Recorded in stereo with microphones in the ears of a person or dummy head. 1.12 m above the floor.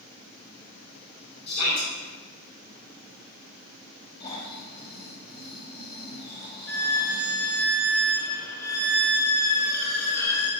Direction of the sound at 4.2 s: 30° left (ahead or behind).